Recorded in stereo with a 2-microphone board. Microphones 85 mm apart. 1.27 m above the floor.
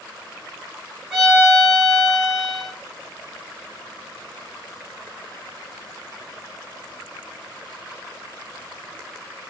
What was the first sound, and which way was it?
A violin, centre (ahead or behind).